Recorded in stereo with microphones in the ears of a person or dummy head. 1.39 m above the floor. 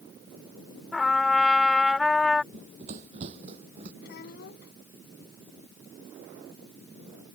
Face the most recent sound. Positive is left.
turn(degrees=65)  # may be behind; listen again after turning